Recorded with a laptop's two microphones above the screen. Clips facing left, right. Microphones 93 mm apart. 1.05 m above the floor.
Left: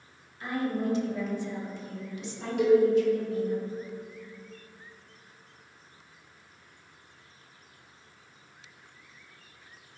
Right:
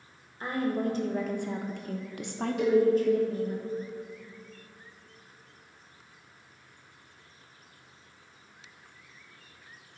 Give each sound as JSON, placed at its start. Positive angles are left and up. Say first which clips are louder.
{"t": 0.4, "sound": "a woman speaking", "louder": "right 1 dB", "side_deg": -35, "distance_m": 1.2}
{"t": 2.6, "sound": "a cowbell", "louder": "left 3 dB", "side_deg": 60, "distance_m": 2.0}